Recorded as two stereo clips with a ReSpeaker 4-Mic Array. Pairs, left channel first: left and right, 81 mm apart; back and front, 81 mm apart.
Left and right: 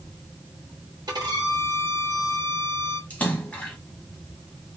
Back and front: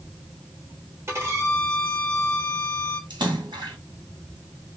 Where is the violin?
55° right, 1.2 m.